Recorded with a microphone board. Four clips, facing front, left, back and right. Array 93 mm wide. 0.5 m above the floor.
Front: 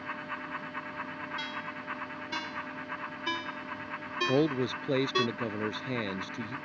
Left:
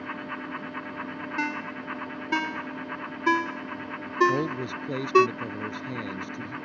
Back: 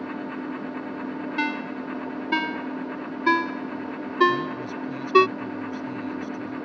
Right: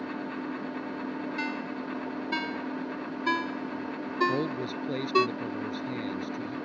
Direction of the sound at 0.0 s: 155° right.